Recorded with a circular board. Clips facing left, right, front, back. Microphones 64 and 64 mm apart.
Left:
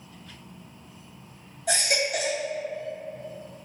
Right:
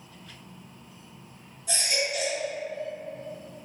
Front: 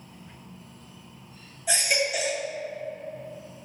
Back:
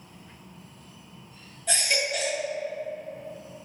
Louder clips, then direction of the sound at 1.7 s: Left 3 dB, front 2 dB; 80° left.